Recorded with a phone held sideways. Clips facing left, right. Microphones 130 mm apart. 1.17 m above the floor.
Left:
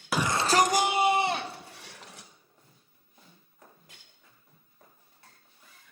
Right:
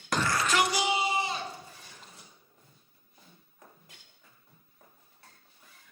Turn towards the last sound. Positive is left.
turn(degrees=75)  # may be behind; listen again after turning